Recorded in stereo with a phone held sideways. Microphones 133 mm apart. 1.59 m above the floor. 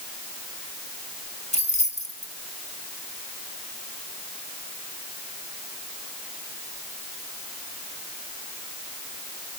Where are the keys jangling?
55° left (ahead or behind), 2 m.